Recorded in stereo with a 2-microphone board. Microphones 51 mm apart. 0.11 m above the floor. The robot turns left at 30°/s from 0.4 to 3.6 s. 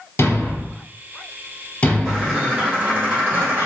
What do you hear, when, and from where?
0.2 s a thud: 55° left (ahead or behind), 1.2 m; by 2.4 s 15° left (ahead or behind), 1.2 m
2.0 s a bird: 10° right, 1.8 m; by 3.7 s 60° right, 1.8 m